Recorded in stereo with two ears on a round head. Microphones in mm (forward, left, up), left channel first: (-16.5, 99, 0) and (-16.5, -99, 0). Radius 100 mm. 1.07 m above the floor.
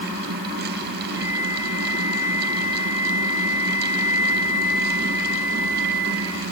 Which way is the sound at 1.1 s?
15° right (ahead or behind).